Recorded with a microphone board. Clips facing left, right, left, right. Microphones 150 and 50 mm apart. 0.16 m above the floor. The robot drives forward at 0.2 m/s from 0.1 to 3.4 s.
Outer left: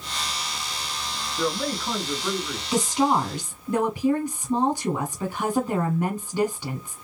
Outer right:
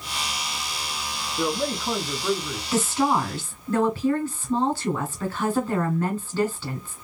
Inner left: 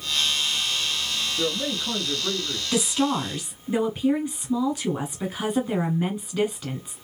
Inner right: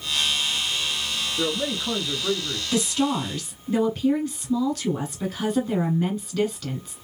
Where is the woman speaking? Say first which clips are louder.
Outer left 1 dB, even; 15° left (ahead or behind), 1.2 m.